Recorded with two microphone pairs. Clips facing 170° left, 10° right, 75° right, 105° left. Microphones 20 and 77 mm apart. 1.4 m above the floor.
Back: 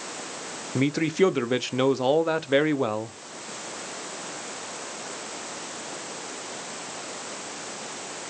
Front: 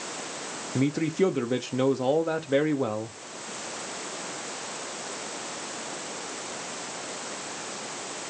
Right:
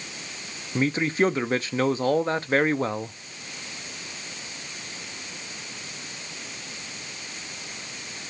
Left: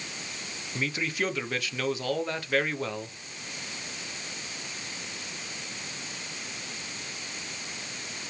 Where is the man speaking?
130° right, 0.6 m.